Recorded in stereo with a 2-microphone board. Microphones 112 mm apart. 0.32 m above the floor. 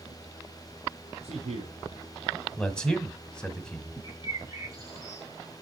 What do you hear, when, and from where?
1.2 s a man speaking: 70° right (ahead or behind), 4 m
2.6 s a man speaking: 5° left (ahead or behind), 1.6 m
4.0 s a bird: 35° right (ahead or behind), 3.5 m